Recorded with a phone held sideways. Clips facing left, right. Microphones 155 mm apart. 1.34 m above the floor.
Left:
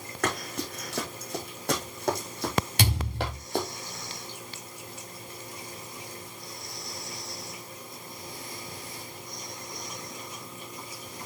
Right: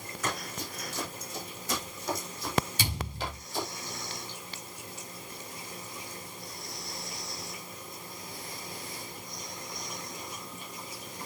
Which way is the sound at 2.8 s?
80° left.